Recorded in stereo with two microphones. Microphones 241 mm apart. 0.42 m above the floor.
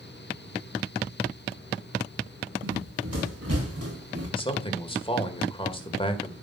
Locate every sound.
2.6 s running footsteps: 80° right, 5 m; by 4.3 s 85° right, 6 m
4.4 s a man speaking: 20° left (ahead or behind), 1.7 m